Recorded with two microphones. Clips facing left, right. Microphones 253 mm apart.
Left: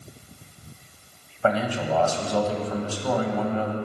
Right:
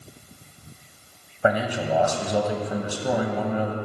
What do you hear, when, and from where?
1.4 s a man speaking: 15° right (ahead or behind), 1.3 m